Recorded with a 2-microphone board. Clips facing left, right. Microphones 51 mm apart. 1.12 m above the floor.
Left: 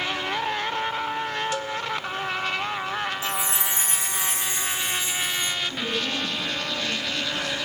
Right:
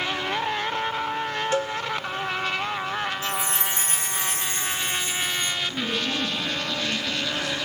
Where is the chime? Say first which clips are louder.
Even; 45° right (ahead or behind), 0.8 m.